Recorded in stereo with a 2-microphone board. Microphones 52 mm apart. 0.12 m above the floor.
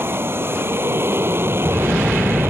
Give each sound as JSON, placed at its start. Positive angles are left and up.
{"t": 0.0, "sound": "an aircraft", "side_deg": -45}